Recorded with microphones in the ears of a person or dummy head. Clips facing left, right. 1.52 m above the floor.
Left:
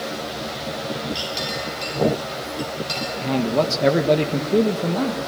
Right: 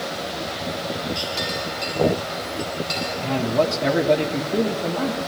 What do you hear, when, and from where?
1.1 s a clink: 35° left (ahead or behind), 9.5 m
3.2 s a man speaking: 50° left (ahead or behind), 1.5 m